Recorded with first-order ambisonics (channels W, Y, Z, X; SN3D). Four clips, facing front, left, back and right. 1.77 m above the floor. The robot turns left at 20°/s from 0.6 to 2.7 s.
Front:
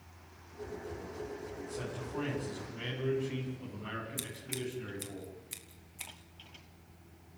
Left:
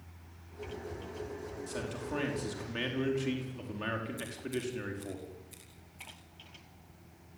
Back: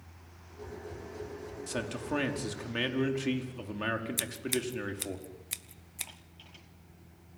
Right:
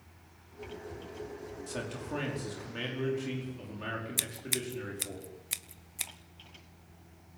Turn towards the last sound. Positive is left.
turn(degrees=-115)